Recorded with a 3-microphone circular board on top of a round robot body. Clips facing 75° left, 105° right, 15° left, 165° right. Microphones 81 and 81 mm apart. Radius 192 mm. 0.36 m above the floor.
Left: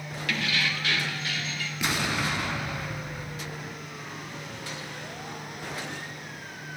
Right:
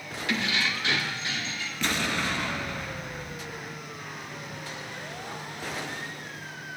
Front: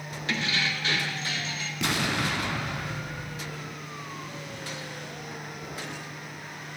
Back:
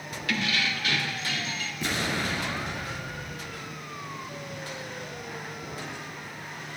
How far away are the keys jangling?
About 1.5 m.